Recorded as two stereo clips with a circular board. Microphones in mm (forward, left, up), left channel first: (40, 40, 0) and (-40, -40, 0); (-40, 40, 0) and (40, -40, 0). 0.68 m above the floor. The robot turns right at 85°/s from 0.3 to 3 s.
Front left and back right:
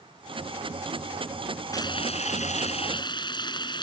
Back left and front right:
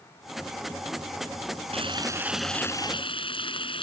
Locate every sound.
1.7 s frying: 15° right; by 3.8 s 95° left